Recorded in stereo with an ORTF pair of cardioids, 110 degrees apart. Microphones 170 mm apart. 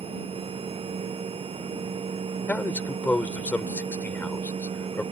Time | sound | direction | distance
0.0 | a machine running | 35° right | ?
2.5 | a man speaking | 10° left | ?